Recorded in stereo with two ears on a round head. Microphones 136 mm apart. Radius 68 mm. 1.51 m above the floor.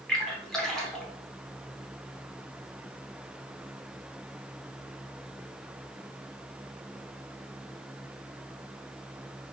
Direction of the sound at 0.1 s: 5° left (ahead or behind).